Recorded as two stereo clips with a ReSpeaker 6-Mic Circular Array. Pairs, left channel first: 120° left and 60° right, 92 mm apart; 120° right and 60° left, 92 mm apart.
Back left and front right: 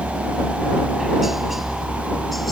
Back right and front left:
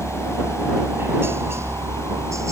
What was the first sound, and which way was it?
A helicopter, 15° left.